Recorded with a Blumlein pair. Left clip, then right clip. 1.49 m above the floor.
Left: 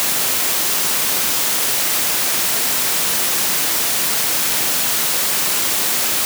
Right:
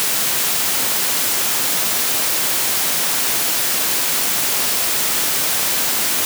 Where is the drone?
No drone in this recording.